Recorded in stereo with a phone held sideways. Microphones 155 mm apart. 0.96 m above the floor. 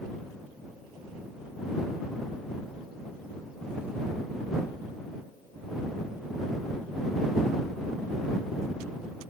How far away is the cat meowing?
No cat meowing in this recording.